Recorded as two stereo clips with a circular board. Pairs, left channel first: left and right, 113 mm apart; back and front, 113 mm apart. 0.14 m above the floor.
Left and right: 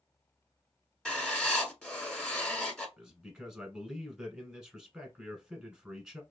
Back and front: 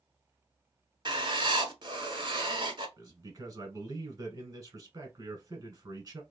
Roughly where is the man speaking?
Ahead.